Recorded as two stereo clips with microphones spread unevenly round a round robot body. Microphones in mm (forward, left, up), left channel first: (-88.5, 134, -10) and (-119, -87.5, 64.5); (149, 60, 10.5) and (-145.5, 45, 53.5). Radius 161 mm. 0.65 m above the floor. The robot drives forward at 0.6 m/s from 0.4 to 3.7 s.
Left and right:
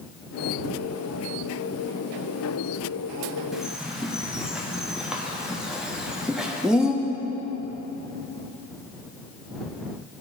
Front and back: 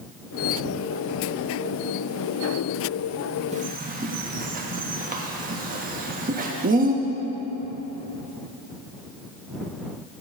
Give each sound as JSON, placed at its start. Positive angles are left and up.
{"t": 3.5, "sound": "a bird", "azimuth_deg": 130, "distance_m": 1.1}